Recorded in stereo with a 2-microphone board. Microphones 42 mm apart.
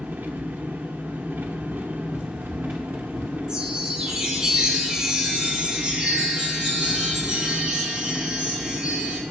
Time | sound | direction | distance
0.0 | an engine running | 55° right (ahead or behind) | 1.0 m
2.1 | running footsteps | 20° right (ahead or behind) | 2.5 m
3.5 | a chime | 20° right (ahead or behind) | 3 m